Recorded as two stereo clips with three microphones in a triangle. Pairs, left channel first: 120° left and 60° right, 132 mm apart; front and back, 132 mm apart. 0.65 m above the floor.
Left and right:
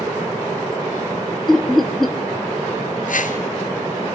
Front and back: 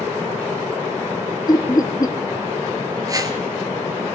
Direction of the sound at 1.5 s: 35° left.